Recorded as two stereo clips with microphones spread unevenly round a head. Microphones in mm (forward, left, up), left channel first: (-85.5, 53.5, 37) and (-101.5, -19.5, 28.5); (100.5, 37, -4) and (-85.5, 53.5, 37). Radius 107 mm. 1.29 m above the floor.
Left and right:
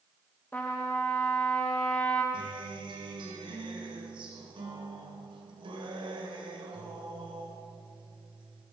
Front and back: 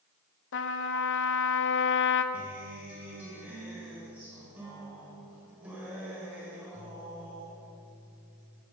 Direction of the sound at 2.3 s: 105° right.